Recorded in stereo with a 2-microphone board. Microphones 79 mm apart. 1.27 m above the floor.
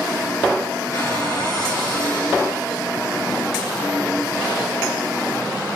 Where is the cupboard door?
55° left (ahead or behind), 7 m.